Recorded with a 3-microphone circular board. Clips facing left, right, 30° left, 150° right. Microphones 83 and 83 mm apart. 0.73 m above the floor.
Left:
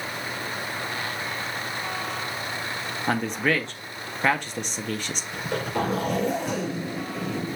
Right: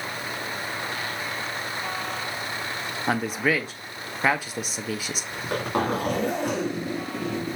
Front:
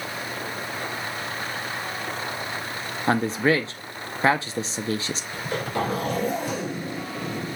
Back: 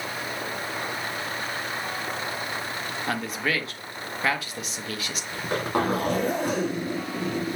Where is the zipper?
120° right, 3 m.